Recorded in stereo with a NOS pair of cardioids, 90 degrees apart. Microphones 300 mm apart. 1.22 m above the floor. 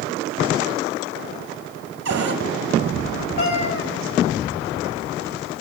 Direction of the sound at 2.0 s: 60° right.